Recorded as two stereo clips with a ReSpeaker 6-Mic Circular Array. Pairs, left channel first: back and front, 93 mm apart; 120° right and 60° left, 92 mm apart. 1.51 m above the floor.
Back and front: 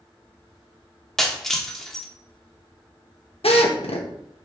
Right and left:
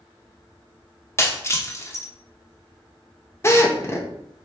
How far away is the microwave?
I don't hear a microwave.